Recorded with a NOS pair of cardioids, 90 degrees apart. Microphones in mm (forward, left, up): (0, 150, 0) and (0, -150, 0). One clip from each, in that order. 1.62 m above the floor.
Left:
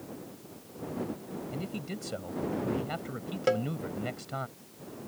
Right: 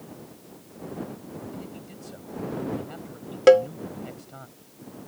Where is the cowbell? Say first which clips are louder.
Right 13 dB; 50° right.